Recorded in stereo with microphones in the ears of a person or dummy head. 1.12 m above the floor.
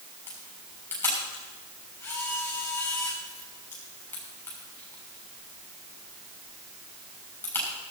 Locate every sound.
0.3 s a camera shutter: 15° left (ahead or behind), 6.5 m